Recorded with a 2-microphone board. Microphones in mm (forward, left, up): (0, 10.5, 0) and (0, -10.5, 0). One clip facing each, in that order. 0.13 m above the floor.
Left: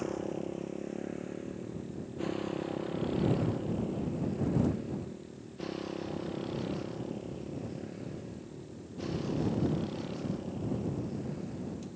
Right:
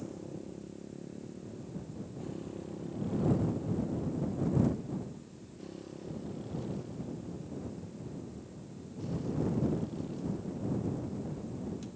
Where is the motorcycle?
45° left (ahead or behind); by 12.0 s 40° left (ahead or behind).